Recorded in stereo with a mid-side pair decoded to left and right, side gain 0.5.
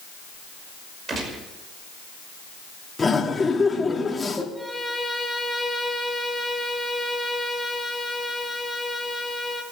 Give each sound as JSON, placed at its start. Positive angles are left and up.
{"t": 1.1, "sound": "a gunshot", "azimuth_deg": -45, "distance_m": 5.5}
{"t": 3.0, "sound": "laughter", "azimuth_deg": 25, "distance_m": 3.5}
{"t": 4.5, "sound": "a violin", "azimuth_deg": 0, "distance_m": 3.0}